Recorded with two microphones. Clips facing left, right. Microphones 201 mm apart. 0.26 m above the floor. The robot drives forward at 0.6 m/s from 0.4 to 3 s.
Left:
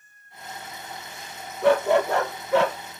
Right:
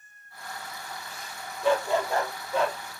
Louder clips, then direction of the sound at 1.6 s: Left 6 dB; 65° left (ahead or behind).